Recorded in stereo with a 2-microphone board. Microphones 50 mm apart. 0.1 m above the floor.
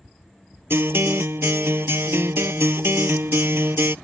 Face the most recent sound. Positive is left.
turn(degrees=-60)  # may be behind; listen again after turning